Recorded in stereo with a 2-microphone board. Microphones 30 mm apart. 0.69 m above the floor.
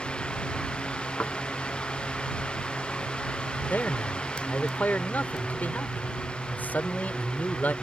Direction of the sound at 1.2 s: 85° left.